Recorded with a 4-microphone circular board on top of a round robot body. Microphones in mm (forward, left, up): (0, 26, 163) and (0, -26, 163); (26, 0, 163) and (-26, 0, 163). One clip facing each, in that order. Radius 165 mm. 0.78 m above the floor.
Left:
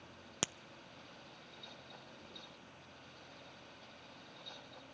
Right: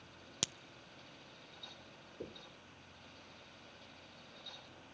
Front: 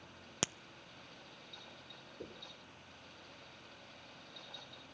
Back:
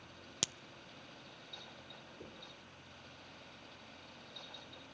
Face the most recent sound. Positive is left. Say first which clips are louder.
# right 5 dB, front 5 dB
turn(degrees=-65)